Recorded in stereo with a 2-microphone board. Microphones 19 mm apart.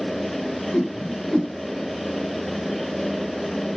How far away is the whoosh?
About 2.5 m.